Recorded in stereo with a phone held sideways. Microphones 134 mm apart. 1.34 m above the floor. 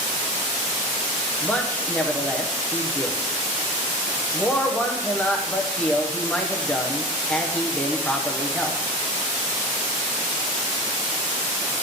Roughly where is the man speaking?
Centre.